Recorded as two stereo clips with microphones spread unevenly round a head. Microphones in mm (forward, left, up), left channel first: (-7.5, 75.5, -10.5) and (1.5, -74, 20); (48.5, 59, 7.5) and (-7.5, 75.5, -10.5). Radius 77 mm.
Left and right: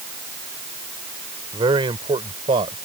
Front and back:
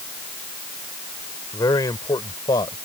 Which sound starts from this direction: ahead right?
A man speaking, at 1.5 s.